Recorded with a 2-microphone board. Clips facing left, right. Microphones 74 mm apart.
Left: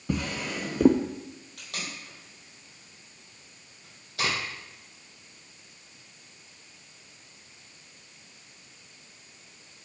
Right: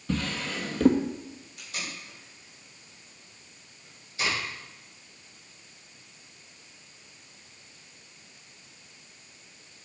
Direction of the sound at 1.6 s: 65° left (ahead or behind).